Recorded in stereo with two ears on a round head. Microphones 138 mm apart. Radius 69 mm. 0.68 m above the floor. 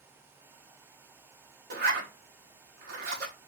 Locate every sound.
1.7 s a zipper: 60° right (ahead or behind), 1.0 m